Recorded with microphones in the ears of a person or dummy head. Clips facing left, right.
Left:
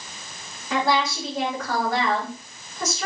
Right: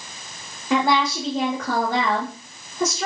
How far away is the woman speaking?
About 1.3 m.